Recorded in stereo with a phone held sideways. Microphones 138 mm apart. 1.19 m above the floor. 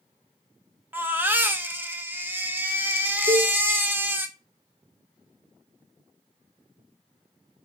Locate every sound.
0.9 s a baby crying: 15° right (ahead or behind), 1.1 m
3.3 s a cowbell: 30° right (ahead or behind), 2.5 m